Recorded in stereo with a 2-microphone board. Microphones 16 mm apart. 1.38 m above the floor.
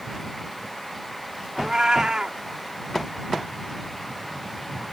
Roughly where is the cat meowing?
Right.